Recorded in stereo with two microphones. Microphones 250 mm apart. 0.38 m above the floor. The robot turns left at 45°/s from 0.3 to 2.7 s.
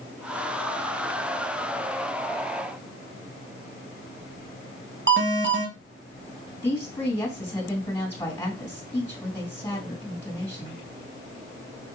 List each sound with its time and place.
5.1 s an alarm: 50° right (ahead or behind), 1.2 m
6.6 s a woman speaking: 10° left (ahead or behind), 3 m